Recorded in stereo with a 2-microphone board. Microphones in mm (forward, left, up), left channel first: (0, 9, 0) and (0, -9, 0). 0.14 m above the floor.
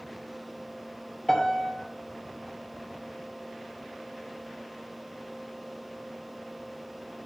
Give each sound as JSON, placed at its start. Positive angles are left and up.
{"t": 1.3, "sound": "a piano", "side_deg": 40, "distance_m": 2.5}